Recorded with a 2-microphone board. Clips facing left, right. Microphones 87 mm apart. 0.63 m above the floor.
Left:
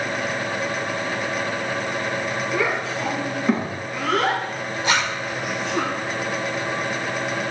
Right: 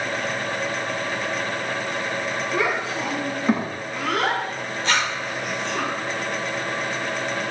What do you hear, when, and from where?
2.5 s a child speaking: 10° right (ahead or behind), 4.5 m; by 5.8 s 5° left (ahead or behind), 3.5 m
4.8 s a zipper: 15° left (ahead or behind), 2 m